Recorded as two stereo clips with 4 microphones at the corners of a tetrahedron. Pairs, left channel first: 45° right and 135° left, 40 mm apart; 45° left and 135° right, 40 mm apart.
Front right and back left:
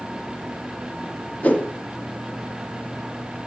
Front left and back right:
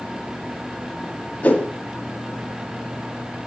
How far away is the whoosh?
About 1.6 m.